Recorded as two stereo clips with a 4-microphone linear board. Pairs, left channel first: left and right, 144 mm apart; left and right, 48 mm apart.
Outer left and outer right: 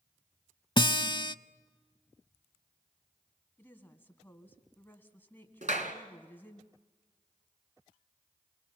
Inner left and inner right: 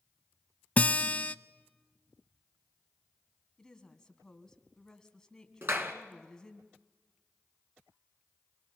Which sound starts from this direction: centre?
A woman speaking, at 3.6 s.